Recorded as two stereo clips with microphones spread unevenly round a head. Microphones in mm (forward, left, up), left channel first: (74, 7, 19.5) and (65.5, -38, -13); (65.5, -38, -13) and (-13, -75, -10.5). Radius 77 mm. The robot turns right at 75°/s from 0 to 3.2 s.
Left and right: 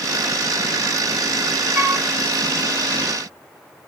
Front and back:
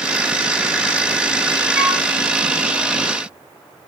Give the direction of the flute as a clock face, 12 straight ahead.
2 o'clock.